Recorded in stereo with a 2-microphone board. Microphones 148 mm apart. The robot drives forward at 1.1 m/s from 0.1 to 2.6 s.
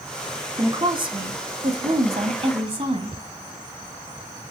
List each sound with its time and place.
0.6 s a woman speaking: 30° right (ahead or behind), 2.5 m; by 3.2 s 45° right (ahead or behind), 1.7 m